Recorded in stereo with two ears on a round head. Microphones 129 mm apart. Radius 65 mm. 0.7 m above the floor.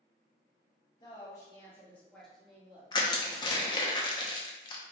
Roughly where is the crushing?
Left.